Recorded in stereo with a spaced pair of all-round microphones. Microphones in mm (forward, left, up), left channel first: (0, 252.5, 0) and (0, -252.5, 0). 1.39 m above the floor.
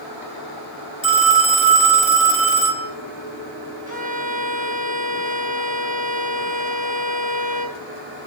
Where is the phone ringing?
10° right (ahead or behind), 1.8 m.